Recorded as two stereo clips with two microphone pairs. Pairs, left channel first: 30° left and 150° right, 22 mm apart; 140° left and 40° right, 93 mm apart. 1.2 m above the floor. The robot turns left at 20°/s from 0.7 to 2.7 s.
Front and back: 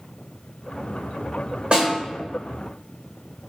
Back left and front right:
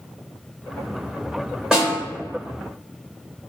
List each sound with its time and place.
1.7 s a snare drum: 120° right, 1.3 m; by 1.9 s 125° right, 1.3 m